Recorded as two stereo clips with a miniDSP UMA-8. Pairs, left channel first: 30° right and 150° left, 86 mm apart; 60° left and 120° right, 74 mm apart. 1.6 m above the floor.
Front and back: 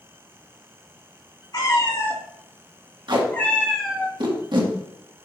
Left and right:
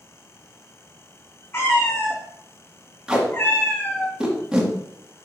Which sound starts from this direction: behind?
Tape being pulled, at 3.1 s.